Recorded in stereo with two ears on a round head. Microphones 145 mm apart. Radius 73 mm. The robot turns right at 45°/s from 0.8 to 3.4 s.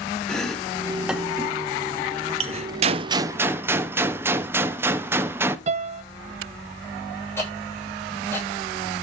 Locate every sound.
0.3 s chopping: 5° left (ahead or behind), 1.3 m; by 2.7 s 40° right (ahead or behind), 1.3 m
2.8 s a gunshot: 40° right (ahead or behind), 0.8 m; by 5.6 s 15° right (ahead or behind), 0.8 m
5.7 s a piano: 45° right (ahead or behind), 0.8 m
7.4 s ticking: 15° left (ahead or behind), 9 m